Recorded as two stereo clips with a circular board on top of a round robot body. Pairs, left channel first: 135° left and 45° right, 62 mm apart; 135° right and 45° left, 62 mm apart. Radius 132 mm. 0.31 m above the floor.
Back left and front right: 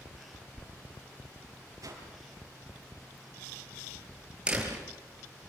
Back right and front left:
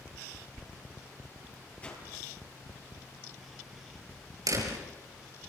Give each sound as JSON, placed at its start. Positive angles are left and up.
{"t": 1.8, "sound": "a whoosh", "azimuth_deg": -65, "distance_m": 7.5}
{"t": 4.5, "sound": "a door slam", "azimuth_deg": 30, "distance_m": 6.5}